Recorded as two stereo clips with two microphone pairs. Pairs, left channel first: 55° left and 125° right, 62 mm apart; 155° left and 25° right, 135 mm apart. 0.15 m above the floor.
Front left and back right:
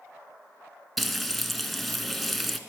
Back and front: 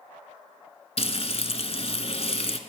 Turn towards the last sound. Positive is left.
turn(degrees=140)